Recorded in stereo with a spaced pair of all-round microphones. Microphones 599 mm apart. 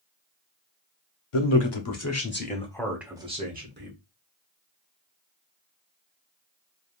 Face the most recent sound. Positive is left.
turn(degrees=-20)  # may be behind; listen again after turning